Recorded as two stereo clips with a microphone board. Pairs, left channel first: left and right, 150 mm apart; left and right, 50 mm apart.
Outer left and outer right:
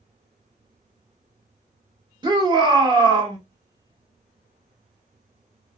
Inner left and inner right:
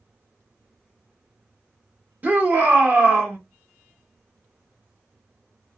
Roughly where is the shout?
Right.